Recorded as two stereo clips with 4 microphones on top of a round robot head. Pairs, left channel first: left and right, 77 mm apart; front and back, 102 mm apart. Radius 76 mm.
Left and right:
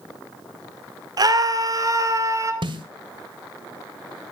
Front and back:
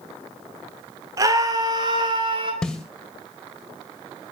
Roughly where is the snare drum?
Right.